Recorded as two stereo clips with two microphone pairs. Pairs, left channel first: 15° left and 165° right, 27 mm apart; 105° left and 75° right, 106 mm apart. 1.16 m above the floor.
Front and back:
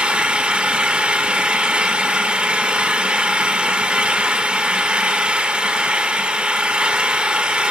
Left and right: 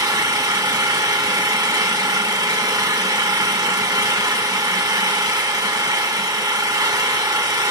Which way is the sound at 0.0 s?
125° right.